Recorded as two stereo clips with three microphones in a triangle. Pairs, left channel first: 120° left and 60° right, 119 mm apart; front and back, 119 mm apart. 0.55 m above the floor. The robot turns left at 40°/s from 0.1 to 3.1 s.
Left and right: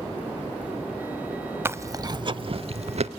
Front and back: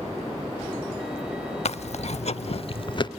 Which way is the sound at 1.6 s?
10° left.